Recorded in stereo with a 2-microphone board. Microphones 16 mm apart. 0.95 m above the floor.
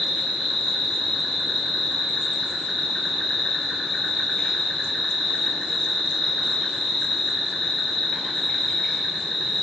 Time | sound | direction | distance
0.0 | an insect | 40° left (ahead or behind) | 4 m